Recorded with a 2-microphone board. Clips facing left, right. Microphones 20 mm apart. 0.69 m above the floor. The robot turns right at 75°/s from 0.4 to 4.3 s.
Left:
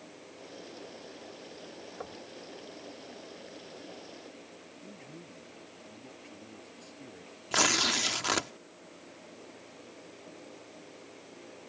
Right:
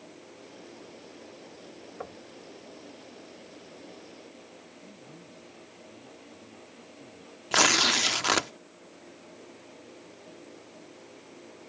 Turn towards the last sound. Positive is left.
turn(degrees=-15)  # may be behind; listen again after turning